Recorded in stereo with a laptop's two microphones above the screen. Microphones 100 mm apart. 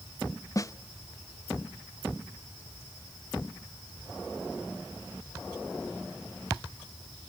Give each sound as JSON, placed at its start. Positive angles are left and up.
{"t": 0.6, "sound": "a snare drum", "side_deg": 35, "distance_m": 0.8}